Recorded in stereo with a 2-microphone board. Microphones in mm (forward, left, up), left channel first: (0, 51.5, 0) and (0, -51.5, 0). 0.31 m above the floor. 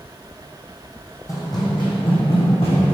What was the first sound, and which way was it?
Running footsteps, 35° left (ahead or behind).